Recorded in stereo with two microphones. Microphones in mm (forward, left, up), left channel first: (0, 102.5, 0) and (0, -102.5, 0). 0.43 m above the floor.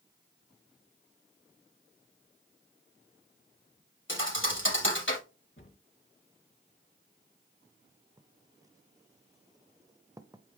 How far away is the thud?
About 3.5 m.